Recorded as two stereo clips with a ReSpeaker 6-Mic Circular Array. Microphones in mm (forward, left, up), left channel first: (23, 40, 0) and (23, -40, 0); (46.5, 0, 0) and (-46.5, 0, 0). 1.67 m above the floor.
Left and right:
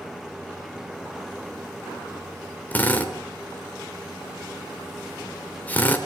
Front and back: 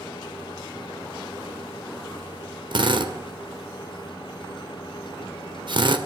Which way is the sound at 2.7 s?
160° left.